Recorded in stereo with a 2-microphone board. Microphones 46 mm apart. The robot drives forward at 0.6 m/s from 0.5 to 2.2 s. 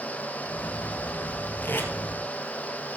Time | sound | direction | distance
1.6 | tape being pulled | 50° left (ahead or behind) | 2.5 m